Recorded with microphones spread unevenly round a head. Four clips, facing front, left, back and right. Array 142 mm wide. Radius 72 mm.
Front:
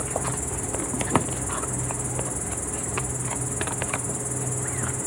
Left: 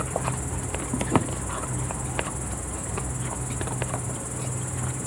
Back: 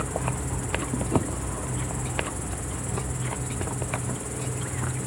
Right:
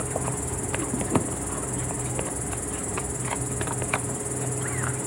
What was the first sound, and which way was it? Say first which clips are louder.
An insect: even, even; 50° right.